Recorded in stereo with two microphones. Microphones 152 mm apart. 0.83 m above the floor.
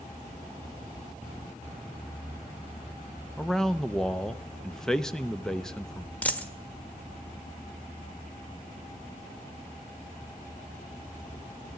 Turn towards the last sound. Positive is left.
turn(degrees=10)  # may be behind; listen again after turning